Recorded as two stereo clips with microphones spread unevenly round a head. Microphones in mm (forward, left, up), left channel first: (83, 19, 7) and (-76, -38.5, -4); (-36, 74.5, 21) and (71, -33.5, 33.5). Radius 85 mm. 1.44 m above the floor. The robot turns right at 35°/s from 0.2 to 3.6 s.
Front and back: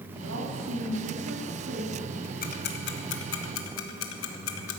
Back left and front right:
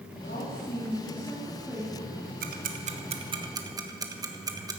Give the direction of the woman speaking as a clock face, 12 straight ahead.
6 o'clock.